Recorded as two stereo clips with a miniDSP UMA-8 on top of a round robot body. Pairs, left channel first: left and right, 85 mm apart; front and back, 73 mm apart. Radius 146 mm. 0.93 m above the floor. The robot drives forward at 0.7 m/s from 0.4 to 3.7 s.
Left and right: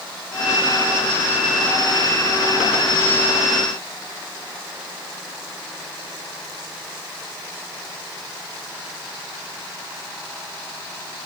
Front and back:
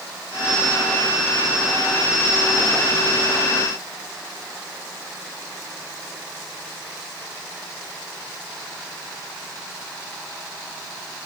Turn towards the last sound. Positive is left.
No sound to turn to.